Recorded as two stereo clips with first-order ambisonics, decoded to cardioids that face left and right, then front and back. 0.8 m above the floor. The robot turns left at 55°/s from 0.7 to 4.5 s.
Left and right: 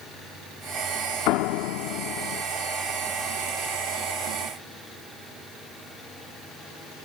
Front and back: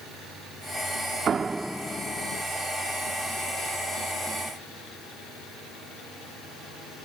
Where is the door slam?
115° left; by 2.4 s 50° left.